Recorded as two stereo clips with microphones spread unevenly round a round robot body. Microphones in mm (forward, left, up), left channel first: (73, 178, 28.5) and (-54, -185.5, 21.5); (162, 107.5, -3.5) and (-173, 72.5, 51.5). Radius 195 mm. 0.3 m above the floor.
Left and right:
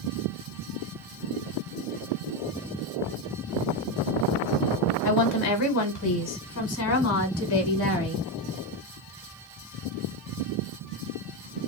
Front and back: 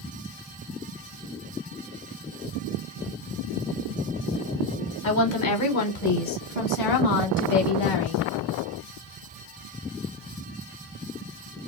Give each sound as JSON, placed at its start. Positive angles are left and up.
{"t": 5.0, "sound": "a woman speaking", "azimuth_deg": 35, "distance_m": 1.7}